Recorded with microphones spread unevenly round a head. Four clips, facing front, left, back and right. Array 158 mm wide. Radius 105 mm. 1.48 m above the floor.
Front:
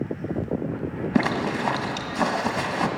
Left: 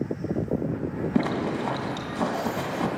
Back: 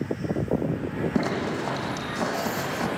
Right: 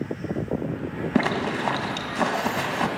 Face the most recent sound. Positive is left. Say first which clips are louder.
# right 2 dB, front 5 dB
turn(degrees=-70)